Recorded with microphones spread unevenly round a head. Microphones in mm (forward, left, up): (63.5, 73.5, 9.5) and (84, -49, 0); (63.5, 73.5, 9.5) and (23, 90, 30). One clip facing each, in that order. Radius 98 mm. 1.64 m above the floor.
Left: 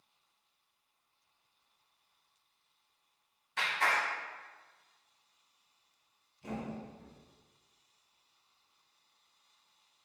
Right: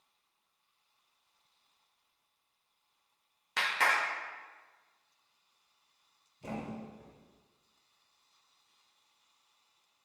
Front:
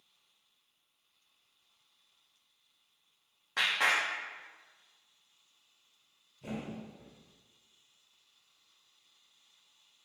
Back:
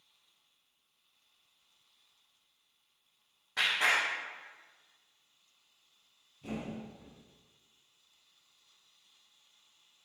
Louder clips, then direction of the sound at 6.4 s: Even, back 1 dB; 50° right.